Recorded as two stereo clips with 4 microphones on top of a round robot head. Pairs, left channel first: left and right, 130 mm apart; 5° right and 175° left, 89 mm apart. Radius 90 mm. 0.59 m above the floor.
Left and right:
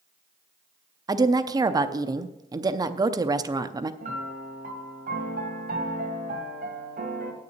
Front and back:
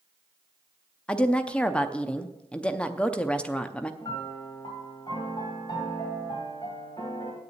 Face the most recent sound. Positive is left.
turn(degrees=-65)